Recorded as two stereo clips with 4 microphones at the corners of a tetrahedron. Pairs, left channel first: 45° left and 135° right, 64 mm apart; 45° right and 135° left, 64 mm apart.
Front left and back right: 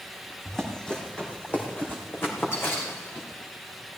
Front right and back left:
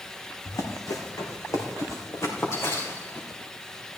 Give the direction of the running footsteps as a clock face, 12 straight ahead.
1 o'clock.